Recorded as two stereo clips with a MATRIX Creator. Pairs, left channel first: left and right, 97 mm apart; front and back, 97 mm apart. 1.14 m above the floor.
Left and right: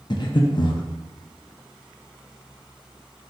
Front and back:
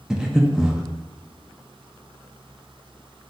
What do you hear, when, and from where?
0.1 s breathing: 100° left, 0.6 m